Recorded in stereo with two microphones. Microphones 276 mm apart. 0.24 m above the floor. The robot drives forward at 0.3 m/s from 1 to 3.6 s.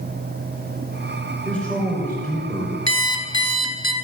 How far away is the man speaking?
About 4 m.